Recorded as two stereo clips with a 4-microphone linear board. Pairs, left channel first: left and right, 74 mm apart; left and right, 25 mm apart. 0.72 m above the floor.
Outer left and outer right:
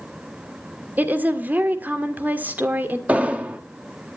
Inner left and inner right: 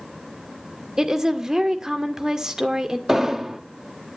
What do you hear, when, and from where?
1.0 s a woman speaking: 25° right (ahead or behind), 1.7 m
3.1 s an explosion: 20° right (ahead or behind), 1.4 m